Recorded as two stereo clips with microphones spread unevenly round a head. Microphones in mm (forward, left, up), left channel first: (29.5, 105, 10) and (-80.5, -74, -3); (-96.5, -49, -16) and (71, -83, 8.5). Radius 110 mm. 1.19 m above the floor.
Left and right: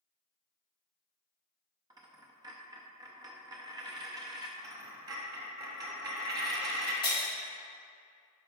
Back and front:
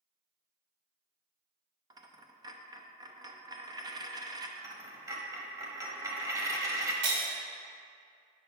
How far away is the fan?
I don't hear a fan.